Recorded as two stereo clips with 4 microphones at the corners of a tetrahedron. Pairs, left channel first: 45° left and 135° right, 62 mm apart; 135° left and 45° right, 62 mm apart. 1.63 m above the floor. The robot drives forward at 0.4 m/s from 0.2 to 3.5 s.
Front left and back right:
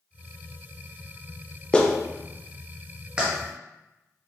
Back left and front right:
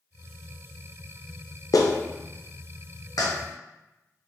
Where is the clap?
120° left, 0.6 m; by 3.3 s 150° left, 1.0 m.